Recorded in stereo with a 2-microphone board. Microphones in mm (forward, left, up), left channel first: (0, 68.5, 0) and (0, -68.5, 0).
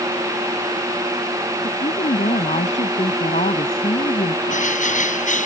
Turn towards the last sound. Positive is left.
turn(degrees=70)  # may be behind; listen again after turning